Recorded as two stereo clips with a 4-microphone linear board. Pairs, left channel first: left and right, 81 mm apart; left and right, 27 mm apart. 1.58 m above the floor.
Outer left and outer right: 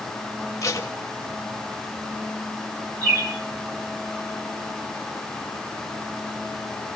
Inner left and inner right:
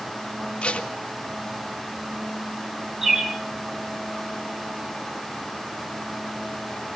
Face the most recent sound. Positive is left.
turn(degrees=-35)  # may be behind; listen again after turning